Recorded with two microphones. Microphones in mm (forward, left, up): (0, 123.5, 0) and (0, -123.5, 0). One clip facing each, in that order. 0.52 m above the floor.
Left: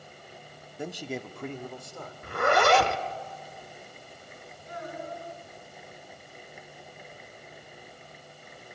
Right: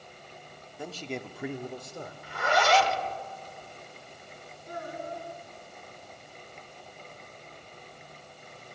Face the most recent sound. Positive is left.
turn(degrees=-45)  # may be behind; listen again after turning